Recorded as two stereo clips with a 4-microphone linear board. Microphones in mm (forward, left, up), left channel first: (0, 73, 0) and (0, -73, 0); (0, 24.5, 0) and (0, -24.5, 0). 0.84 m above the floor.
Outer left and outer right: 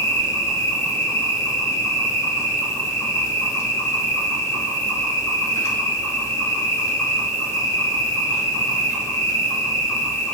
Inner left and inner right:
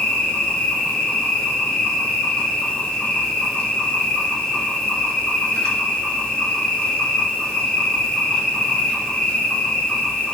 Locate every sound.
0.0 s an insect: 20° left (ahead or behind), 1.0 m